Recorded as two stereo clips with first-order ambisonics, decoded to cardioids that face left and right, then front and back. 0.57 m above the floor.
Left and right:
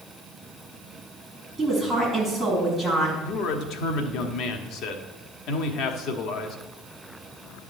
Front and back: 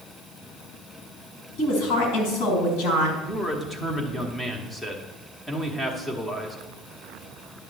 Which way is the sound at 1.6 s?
Straight ahead.